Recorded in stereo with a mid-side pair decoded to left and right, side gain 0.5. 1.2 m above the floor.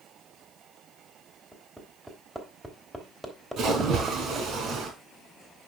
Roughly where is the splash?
Ahead right.